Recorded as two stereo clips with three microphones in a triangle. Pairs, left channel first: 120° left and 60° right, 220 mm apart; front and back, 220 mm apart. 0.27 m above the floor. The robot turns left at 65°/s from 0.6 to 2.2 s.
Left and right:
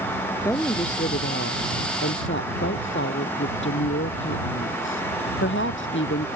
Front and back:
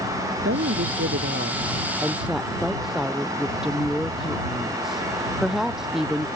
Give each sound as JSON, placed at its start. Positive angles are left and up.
{"t": 0.5, "sound": "a woman speaking", "azimuth_deg": -165}